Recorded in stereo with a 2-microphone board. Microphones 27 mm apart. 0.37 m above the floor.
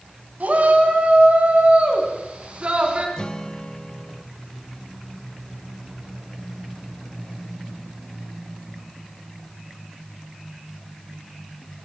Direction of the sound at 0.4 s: 60° right (ahead or behind).